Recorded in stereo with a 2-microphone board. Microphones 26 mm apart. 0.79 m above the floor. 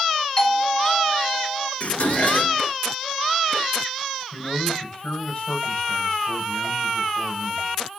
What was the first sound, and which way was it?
A doorbell, 20° left (ahead or behind).